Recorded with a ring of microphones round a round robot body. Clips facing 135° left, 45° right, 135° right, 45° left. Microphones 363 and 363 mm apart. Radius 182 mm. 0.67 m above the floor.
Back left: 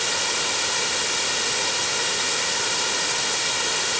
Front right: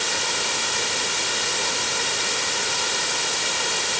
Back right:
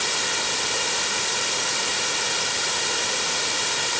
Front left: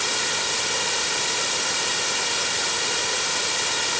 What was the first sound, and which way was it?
Only background noise.